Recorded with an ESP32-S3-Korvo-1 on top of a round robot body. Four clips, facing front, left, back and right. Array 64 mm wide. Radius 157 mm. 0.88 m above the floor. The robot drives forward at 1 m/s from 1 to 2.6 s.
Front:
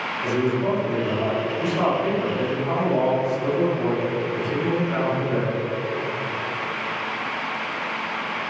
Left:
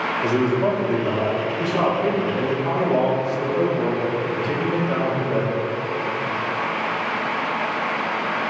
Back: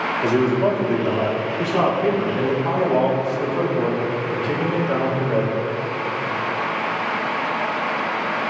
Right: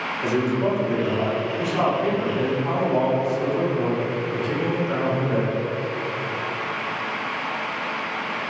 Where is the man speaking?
165° left, 3.5 m; by 5.5 s 170° left, 5 m.